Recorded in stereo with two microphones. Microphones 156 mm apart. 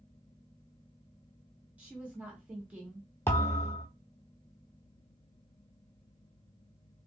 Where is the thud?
15° left (ahead or behind), 1.0 m.